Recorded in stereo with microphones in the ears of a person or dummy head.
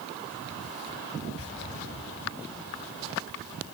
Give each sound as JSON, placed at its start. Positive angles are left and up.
{"t": 1.4, "sound": "an explosion", "side_deg": -75, "distance_m": 7.0}